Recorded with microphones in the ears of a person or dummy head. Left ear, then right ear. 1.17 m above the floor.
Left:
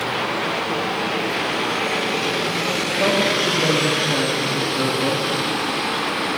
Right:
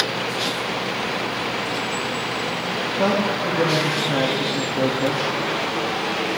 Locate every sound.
3.0 s a man speaking: 35° right (ahead or behind), 1.8 m